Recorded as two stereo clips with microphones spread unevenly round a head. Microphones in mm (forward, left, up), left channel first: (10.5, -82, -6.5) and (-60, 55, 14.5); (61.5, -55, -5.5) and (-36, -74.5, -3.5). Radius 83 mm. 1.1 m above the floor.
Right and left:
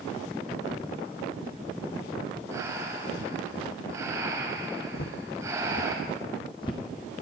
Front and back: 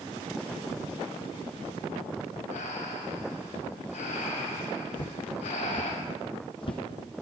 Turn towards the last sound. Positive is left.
turn(degrees=5)